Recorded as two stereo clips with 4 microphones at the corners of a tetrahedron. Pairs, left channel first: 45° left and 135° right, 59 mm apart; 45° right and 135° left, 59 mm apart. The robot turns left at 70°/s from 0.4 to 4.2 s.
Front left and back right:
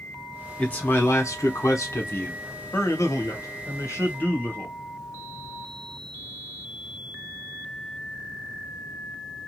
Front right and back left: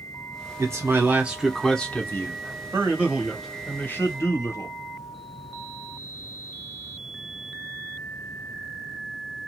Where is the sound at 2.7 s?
90° left, 1.1 m; by 4.8 s 10° right, 1.1 m.